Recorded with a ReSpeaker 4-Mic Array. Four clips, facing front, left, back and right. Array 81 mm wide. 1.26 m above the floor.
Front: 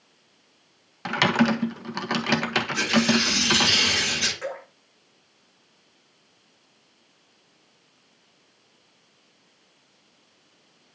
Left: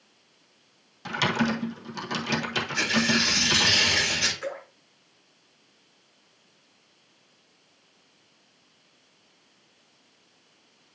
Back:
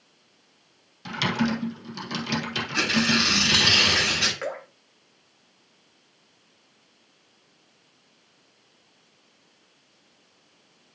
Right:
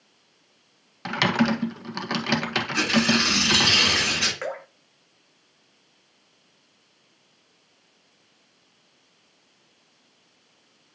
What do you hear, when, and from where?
1.1 s typing on a keyboard: 35° right, 1.5 m
2.7 s tearing paper: 120° right, 7.5 m
4.4 s dripping: 115° right, 4 m